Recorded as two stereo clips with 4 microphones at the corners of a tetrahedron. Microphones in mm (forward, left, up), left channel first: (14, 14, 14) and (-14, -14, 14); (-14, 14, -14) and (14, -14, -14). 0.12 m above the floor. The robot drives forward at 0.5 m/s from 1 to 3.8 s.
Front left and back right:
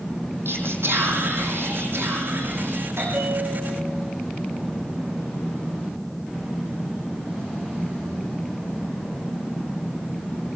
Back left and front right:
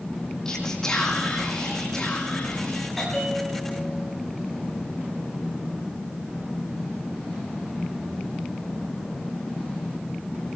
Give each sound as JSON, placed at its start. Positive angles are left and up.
{"t": 0.5, "sound": "whispering", "azimuth_deg": -150, "distance_m": 6.5}
{"t": 3.0, "sound": "a bell", "azimuth_deg": -140, "distance_m": 6.5}